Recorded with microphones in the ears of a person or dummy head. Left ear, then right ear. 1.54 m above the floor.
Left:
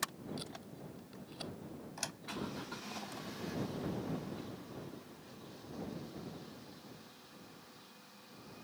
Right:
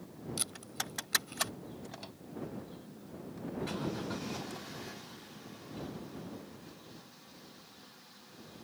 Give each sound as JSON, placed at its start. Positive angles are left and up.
{"t": 0.4, "sound": "tape being pulled", "side_deg": -25}
{"t": 2.0, "sound": "a door slam", "side_deg": 65}